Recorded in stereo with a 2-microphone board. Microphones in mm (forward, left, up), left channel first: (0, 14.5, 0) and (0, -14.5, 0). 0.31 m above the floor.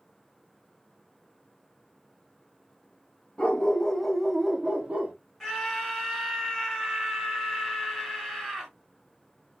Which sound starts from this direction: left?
A dog barking, at 3.4 s.